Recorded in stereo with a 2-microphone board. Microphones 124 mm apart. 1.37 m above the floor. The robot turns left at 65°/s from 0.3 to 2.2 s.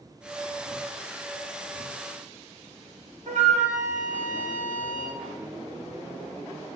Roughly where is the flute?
Right.